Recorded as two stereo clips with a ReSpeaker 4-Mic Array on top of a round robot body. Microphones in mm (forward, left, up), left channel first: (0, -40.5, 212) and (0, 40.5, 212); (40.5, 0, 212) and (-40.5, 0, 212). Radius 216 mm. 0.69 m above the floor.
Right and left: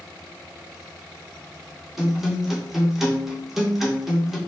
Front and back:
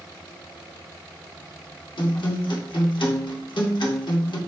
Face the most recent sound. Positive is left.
turn(degrees=5)